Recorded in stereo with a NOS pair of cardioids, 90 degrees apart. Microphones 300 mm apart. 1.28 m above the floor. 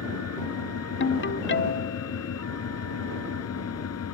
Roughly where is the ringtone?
Ahead left.